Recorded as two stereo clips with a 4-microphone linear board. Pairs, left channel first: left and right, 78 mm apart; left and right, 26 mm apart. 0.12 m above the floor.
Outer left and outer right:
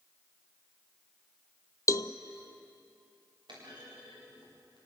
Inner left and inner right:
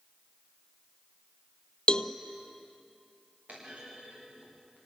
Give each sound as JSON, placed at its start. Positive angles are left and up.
{"t": 1.9, "sound": "a cowbell", "side_deg": 45, "distance_m": 0.8}
{"t": 3.5, "sound": "a clunk", "side_deg": -85, "distance_m": 10.0}